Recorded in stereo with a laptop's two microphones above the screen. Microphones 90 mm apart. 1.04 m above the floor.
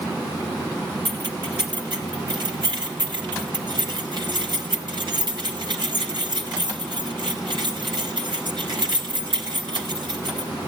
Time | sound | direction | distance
1.1 | keys jangling | 60° right (ahead or behind) | 2.5 m